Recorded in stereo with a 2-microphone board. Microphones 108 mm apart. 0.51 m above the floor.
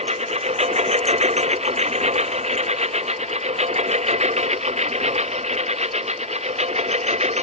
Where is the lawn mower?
85° right; by 7.4 s 90° right.